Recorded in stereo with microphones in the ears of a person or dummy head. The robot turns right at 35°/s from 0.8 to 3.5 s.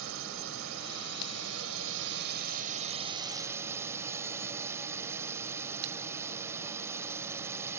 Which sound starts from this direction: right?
A drone, at 0.0 s.